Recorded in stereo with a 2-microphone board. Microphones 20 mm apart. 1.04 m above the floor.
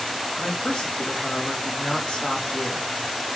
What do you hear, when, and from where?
0.4 s a man speaking: 70° left (ahead or behind), 1.5 m